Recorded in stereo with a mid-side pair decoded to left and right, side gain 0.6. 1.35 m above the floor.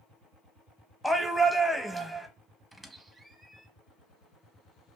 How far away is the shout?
About 0.8 m.